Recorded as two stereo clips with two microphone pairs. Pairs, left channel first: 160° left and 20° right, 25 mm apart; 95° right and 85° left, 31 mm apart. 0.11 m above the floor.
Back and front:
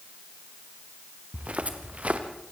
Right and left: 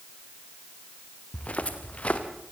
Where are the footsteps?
50° right, 2.5 m.